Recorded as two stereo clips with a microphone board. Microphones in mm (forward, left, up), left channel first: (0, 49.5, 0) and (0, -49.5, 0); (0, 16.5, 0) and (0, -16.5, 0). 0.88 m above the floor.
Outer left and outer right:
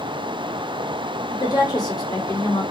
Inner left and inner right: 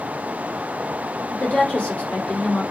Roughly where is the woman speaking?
Left.